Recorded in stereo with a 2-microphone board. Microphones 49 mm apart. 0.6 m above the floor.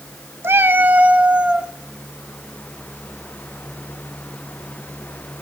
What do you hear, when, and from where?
0.4 s a cat meowing: 50° right (ahead or behind), 0.7 m; by 1.7 s 15° right (ahead or behind), 1.3 m